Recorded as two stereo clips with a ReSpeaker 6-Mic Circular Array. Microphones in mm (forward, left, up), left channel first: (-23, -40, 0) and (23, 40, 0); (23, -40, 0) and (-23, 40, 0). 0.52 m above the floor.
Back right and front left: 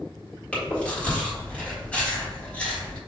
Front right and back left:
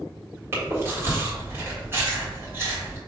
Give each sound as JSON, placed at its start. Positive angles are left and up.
{"t": 0.5, "sound": "chewing", "azimuth_deg": 170, "distance_m": 1.7}